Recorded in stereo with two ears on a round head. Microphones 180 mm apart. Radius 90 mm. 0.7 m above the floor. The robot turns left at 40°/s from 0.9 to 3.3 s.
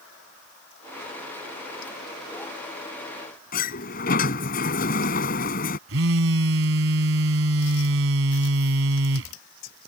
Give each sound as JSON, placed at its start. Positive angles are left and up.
{"t": 3.5, "sound": "a sliding door", "side_deg": 45}
{"t": 5.9, "sound": "a phone buzzing", "side_deg": -75}